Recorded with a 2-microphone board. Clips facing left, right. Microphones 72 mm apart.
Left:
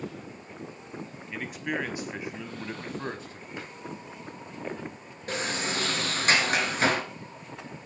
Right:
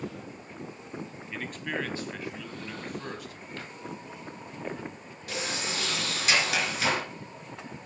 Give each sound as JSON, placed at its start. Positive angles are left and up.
{"t": 1.3, "sound": "a man speaking", "side_deg": 5, "distance_m": 1.3}
{"t": 3.6, "sound": "a drawer", "side_deg": 15, "distance_m": 2.5}
{"t": 5.3, "sound": "a sliding door", "side_deg": 40, "distance_m": 2.5}